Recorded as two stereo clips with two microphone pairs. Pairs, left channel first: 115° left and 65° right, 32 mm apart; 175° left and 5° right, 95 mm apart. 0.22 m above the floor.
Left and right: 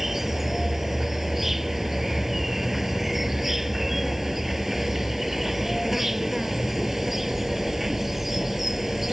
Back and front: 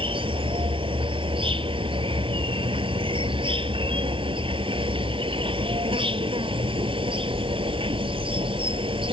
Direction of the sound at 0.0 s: 15° left.